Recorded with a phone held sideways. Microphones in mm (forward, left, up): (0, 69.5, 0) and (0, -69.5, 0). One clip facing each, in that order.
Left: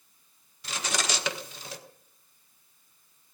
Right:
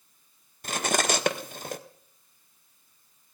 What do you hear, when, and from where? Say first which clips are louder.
0.6 s cutlery clinking: right 6 dB; 55° right (ahead or behind), 0.6 m